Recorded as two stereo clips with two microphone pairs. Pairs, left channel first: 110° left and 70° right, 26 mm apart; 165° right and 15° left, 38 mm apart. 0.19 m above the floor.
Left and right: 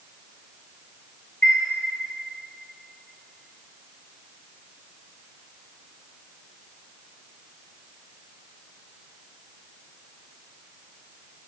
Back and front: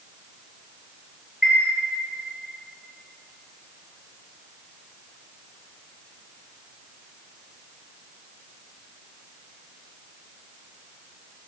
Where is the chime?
95° left, 0.6 m.